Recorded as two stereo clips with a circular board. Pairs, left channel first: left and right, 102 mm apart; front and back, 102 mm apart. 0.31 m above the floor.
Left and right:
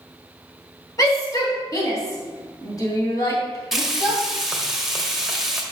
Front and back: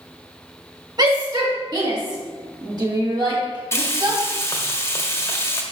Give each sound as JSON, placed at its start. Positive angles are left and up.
{"t": 1.0, "sound": "a shout", "azimuth_deg": 140, "distance_m": 2.5}
{"t": 3.7, "sound": "frying", "azimuth_deg": -10, "distance_m": 1.4}